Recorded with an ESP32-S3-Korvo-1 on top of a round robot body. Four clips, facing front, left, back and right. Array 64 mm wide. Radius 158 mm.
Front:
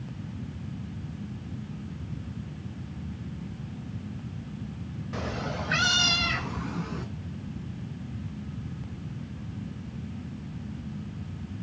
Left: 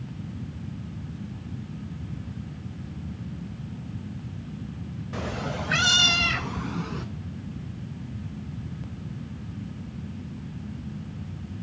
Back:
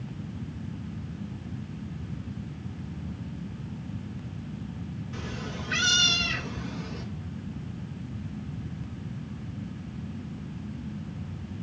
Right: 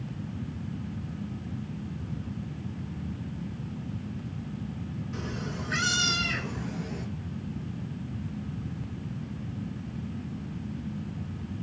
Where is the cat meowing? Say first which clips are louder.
Left 7 dB, front 6 dB; 40° left, 0.5 m; by 7.0 s 60° left, 1.8 m.